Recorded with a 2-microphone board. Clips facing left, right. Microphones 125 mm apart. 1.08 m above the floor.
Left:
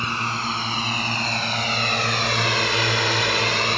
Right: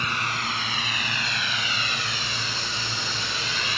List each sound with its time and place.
0.0 s a drone: 30° left (ahead or behind); by 3.8 s 50° left (ahead or behind)